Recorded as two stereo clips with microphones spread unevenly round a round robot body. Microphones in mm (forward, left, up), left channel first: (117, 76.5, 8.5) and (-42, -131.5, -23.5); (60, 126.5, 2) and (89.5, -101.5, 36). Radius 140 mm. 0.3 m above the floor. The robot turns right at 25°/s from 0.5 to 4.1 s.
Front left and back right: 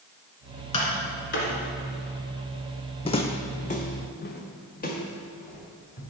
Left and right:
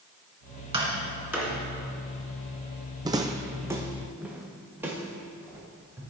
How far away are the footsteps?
About 0.7 m.